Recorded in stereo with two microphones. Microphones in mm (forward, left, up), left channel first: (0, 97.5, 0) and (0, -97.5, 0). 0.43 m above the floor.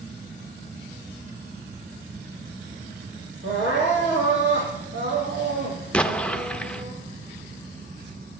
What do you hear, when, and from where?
3.4 s crying: 75° right (ahead or behind), 4.5 m
5.9 s an explosion: 5° left (ahead or behind), 0.6 m